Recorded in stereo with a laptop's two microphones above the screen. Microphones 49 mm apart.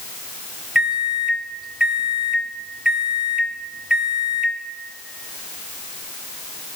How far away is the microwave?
About 0.6 m.